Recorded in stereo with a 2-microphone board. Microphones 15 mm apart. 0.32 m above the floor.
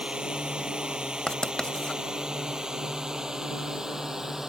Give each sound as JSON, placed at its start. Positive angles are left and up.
{"t": 0.0, "sound": "a drone", "side_deg": -80}
{"t": 1.3, "sound": "writing", "side_deg": 50}